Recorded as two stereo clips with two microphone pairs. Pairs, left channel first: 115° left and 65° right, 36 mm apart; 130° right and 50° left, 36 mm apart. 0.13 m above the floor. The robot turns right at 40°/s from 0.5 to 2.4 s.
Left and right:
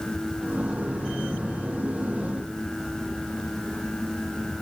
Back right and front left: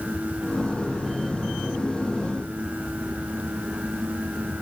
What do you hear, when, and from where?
Only background noise.